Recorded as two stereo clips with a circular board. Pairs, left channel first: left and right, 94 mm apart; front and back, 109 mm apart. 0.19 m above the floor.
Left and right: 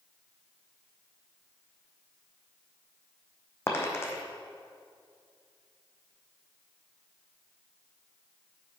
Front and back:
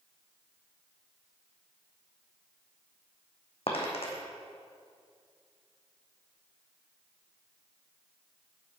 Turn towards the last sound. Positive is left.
turn(degrees=25)